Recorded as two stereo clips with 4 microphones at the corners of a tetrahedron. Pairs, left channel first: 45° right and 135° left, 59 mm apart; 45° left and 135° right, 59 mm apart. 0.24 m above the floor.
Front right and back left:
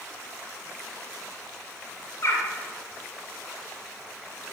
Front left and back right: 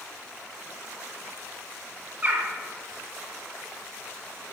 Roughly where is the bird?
Right.